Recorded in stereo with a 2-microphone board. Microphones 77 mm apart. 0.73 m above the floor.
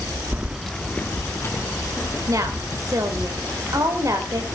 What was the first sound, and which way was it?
Keys jangling, 25° right (ahead or behind).